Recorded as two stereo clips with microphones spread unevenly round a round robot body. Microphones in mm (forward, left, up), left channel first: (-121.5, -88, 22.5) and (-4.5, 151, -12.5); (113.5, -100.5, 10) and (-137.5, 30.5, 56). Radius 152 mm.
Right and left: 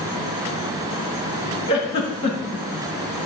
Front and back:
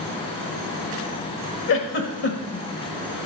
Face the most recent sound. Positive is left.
turn(degrees=-40)